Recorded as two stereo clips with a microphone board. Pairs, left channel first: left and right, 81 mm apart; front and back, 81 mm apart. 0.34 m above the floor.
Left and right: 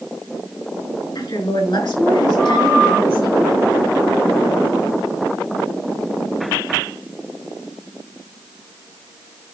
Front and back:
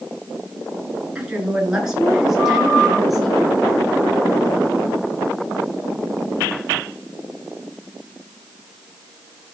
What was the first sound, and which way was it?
A woman speaking, 105° left.